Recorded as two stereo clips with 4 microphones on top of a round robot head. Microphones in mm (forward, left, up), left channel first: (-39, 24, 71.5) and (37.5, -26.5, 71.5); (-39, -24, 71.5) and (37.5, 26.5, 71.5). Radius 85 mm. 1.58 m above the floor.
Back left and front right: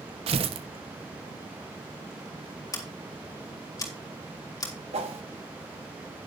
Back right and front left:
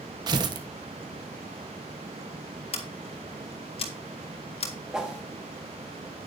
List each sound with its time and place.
0.3 s tearing paper: 15° right, 1.2 m
2.7 s scissors: 160° right, 2.5 m
4.9 s a whoosh: 50° right, 1.6 m